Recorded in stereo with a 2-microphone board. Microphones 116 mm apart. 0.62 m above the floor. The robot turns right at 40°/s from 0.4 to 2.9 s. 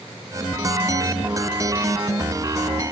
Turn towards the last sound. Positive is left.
No sound to turn to.